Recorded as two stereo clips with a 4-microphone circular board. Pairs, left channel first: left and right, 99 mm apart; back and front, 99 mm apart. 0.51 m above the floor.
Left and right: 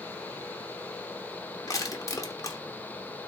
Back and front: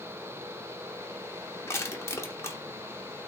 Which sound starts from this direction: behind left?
Crushing, at 1.7 s.